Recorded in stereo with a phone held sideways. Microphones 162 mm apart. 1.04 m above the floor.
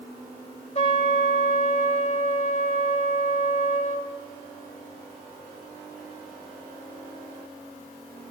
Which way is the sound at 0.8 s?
45° left (ahead or behind).